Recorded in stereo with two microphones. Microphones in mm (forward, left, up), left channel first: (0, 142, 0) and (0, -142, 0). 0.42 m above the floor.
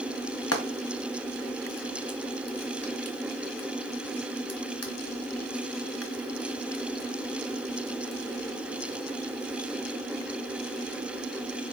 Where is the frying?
65° left (ahead or behind), 1.6 m.